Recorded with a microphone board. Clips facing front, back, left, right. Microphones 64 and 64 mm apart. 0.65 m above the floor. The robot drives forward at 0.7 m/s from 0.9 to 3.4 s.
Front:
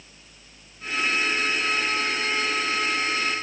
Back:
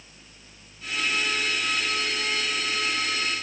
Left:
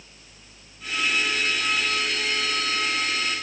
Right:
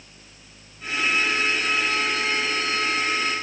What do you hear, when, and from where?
Only background noise.